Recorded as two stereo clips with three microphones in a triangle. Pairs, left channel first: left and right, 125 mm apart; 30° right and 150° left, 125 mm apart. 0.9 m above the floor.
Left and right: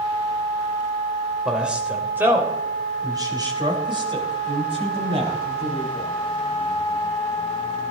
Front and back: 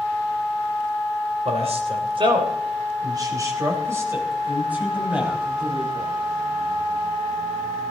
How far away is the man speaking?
About 3 m.